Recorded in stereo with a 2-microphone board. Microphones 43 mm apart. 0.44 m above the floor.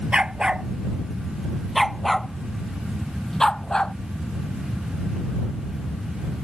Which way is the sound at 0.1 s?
25° right (ahead or behind).